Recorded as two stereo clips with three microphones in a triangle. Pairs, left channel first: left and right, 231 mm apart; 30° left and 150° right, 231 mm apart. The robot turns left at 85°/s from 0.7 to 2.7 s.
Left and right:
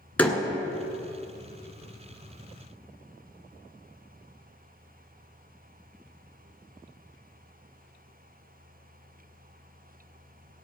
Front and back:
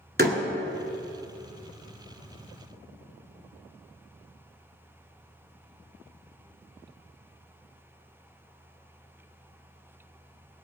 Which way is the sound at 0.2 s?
175° left.